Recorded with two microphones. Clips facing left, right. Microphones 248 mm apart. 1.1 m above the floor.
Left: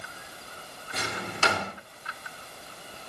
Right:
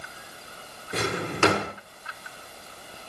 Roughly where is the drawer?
Right.